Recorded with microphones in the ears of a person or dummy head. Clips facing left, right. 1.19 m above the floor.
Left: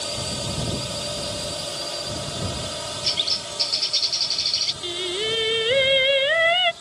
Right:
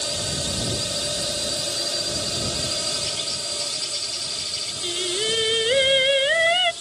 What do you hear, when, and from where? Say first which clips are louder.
0.0 s a drone: even; 20° right (ahead or behind); by 6.8 s 40° right (ahead or behind)
3.0 s a bird: even; 20° left (ahead or behind)
4.8 s singing: even; centre (ahead or behind)